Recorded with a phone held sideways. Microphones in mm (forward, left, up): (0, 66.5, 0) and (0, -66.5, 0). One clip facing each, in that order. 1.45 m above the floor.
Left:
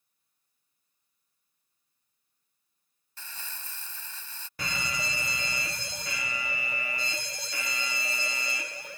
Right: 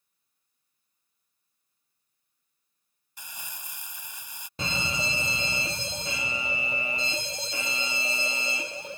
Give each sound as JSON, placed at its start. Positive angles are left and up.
{"t": 3.2, "sound": "crumpling", "side_deg": -15}
{"t": 4.6, "sound": "a fire alarm", "side_deg": -20}